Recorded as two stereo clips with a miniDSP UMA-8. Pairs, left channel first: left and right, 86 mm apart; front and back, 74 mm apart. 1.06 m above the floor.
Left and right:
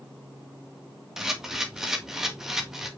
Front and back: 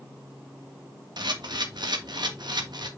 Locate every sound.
1.2 s a camera shutter: 175° right, 1.5 m